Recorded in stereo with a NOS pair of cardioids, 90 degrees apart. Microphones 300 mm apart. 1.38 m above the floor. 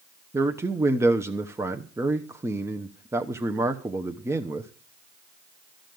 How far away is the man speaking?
About 0.8 m.